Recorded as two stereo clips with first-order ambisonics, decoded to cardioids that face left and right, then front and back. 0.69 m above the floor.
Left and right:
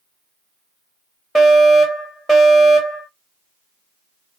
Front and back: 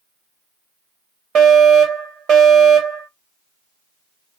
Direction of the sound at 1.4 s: Straight behind.